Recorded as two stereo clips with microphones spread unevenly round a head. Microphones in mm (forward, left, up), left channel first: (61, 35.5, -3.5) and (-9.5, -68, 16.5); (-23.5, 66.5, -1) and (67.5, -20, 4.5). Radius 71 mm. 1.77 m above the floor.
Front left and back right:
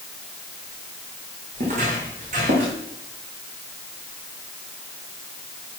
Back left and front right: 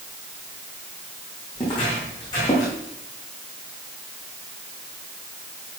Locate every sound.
1.6 s footsteps: 160° right, 5.5 m